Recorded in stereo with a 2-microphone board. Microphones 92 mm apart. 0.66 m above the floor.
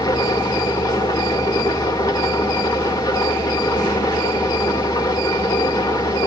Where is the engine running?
45° left (ahead or behind), 1.3 m.